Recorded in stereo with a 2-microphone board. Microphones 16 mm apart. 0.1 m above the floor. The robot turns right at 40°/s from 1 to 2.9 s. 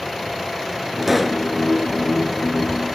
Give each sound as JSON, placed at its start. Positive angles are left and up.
{"t": 1.0, "sound": "a pop", "side_deg": -15, "distance_m": 1.2}